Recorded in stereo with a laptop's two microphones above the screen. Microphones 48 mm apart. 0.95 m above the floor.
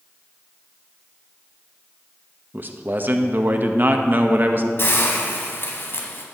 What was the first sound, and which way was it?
A man speaking, 45° right (ahead or behind).